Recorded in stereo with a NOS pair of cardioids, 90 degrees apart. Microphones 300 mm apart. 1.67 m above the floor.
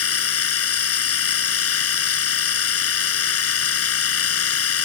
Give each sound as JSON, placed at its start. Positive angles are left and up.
{"t": 0.0, "sound": "a machine running", "azimuth_deg": 50}